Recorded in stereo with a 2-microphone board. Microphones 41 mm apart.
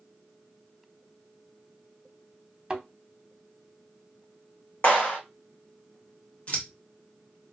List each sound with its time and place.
2.7 s a thud: 20° right (ahead or behind), 0.6 m
4.8 s a clap: 45° left (ahead or behind), 1.7 m
6.5 s scissors: 35° left (ahead or behind), 1.0 m